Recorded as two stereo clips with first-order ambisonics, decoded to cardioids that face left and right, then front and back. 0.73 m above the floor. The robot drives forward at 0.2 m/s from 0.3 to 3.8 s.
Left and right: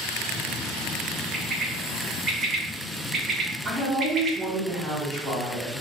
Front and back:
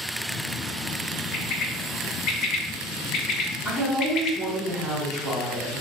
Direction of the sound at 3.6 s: 120° right.